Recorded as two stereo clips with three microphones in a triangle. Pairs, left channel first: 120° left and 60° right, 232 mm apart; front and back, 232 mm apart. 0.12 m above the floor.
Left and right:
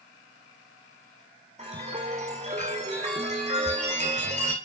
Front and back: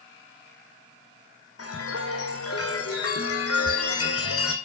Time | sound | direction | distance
1.6 | a chime | straight ahead | 1.7 m